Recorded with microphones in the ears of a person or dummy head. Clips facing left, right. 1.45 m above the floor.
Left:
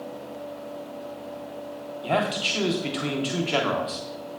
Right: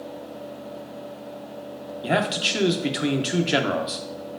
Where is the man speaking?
15° right (ahead or behind), 0.5 m.